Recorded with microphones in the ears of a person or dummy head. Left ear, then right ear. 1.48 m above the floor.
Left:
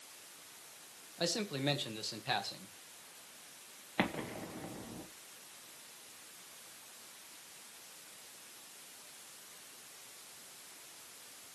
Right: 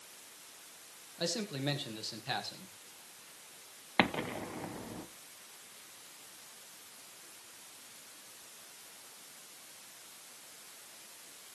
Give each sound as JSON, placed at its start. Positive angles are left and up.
{"t": 1.2, "sound": "a man speaking", "side_deg": 15, "distance_m": 1.7}
{"t": 4.0, "sound": "an explosion", "side_deg": -35, "distance_m": 1.0}